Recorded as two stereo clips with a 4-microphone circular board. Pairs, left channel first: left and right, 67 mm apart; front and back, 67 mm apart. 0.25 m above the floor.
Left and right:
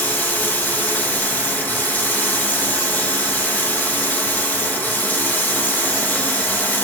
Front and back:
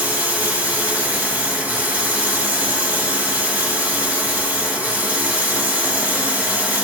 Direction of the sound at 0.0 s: 130° left.